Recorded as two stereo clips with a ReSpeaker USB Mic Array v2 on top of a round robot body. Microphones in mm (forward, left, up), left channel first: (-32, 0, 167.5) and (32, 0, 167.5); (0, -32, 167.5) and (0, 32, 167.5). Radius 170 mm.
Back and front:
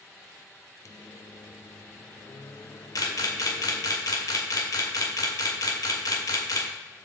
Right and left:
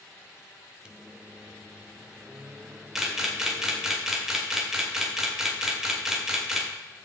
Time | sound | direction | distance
0.8 | a microwave | 165° left | 0.9 m
3.0 | a camera shutter | 170° left | 2 m